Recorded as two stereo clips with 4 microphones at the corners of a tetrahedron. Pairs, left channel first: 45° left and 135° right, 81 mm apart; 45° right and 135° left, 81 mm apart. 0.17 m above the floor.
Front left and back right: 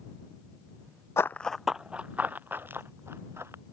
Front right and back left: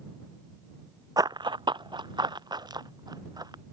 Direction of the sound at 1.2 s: 100° left.